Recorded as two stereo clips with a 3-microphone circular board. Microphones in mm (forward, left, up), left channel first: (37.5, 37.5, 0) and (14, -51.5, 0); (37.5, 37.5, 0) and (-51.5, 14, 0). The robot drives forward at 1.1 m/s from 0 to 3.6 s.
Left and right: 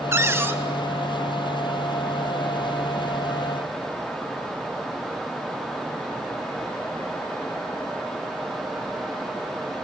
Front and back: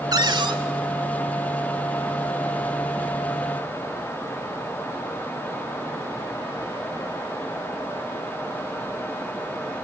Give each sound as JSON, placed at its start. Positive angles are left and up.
{"t": 0.1, "sound": "a cupboard door", "azimuth_deg": -155, "distance_m": 0.8}